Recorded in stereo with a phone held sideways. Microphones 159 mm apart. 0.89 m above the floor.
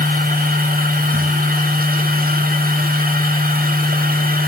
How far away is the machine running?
About 1.8 m.